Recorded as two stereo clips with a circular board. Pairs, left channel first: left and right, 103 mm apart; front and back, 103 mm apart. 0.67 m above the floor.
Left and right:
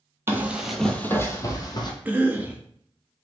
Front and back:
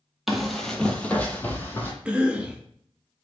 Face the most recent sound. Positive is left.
turn(degrees=-125)